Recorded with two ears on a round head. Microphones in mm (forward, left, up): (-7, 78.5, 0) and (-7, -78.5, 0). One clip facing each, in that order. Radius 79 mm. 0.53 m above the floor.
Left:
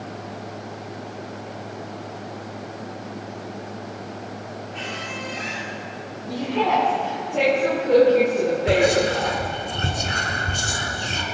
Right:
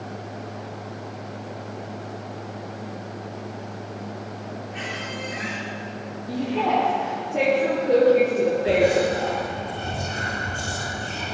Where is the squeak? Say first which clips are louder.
Even; 15° right (ahead or behind), 4 m.